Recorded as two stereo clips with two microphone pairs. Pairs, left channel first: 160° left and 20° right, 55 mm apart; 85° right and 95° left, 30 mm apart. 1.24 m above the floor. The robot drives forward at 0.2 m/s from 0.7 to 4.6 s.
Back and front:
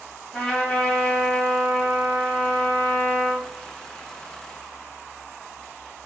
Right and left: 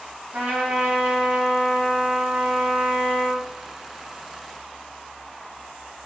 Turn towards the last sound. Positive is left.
turn(degrees=125)